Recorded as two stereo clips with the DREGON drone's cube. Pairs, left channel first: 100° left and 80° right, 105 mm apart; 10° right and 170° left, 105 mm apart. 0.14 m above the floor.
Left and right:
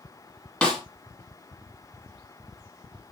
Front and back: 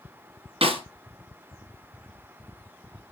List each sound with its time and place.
0.6 s a snare drum: straight behind, 3 m